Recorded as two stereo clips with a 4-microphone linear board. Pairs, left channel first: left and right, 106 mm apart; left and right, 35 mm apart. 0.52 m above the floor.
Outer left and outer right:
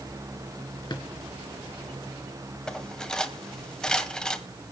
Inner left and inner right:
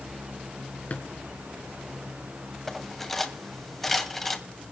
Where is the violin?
I don't hear a violin.